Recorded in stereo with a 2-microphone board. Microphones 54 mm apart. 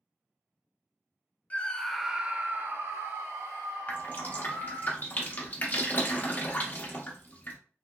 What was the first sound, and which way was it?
A scream, 25° left (ahead or behind).